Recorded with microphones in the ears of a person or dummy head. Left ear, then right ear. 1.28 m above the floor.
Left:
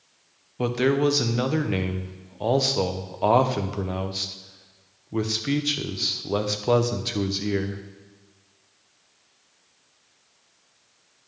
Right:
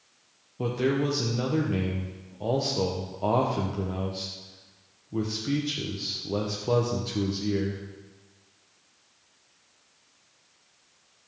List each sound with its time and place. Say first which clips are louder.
0.6 s a man speaking: left 5 dB; 50° left (ahead or behind), 0.7 m